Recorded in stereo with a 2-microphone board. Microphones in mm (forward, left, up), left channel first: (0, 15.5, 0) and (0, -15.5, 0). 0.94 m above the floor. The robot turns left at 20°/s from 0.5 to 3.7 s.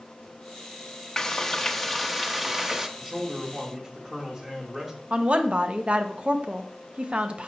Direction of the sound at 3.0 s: 10° left (ahead or behind).